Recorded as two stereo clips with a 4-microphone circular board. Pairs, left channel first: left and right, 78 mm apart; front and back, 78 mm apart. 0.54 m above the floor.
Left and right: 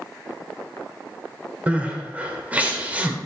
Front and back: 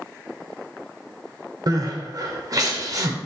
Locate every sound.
1.7 s crying: 160° right, 2 m